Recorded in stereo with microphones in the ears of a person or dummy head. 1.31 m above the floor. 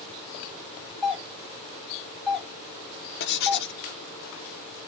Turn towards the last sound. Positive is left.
turn(degrees=60)  # may be behind; listen again after turning